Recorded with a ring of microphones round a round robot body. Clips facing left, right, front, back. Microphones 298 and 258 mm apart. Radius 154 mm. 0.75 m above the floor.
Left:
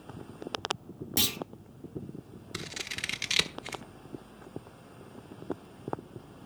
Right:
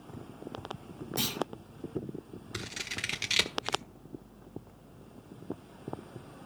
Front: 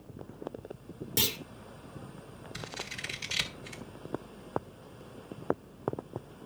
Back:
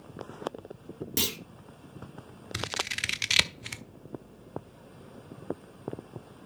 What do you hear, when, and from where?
1.2 s a clunk: 120° left, 2.5 m
2.5 s scissors: 175° left, 1.0 m